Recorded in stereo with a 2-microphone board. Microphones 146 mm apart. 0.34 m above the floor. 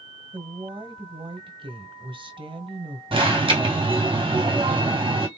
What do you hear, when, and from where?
0.3 s a woman speaking: 35° right (ahead or behind), 1.5 m
3.1 s an alarm: 35° right (ahead or behind), 2 m